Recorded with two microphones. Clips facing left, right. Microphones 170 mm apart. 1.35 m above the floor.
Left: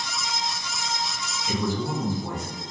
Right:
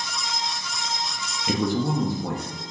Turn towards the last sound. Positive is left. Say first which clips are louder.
# right 4 dB
turn(degrees=-65)  # may be behind; listen again after turning